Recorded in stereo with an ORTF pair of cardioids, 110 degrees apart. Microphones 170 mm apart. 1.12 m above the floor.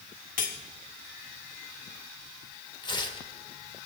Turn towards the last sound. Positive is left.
turn(degrees=30)